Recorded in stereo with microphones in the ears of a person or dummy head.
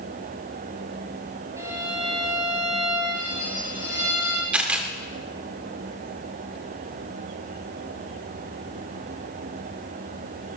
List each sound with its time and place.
1.6 s a violin: 15° right (ahead or behind), 5.5 m
4.5 s a camera shutter: 10° right (ahead or behind), 2.5 m